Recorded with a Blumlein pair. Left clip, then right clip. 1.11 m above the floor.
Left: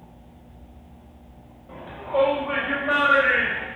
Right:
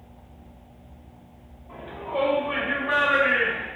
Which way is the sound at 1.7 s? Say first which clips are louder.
Left 4 dB; 50° left.